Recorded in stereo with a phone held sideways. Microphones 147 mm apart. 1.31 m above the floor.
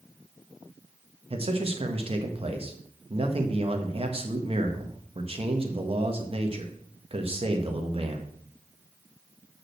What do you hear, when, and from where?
1.3 s a man speaking: 40° right (ahead or behind), 1.7 m